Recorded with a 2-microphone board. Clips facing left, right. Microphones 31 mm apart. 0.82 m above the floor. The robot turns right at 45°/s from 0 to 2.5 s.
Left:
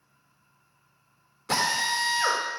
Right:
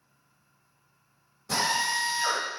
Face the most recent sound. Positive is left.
turn(degrees=125)